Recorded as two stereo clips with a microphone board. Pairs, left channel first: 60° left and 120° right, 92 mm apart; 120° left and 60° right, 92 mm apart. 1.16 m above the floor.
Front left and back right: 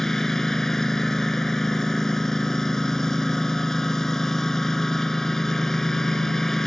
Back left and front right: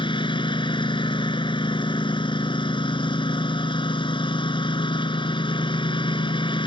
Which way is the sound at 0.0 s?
145° left.